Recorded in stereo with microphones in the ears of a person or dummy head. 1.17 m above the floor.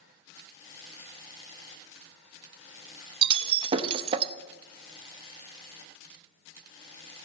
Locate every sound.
3.2 s breaking glass: 40° right (ahead or behind), 0.7 m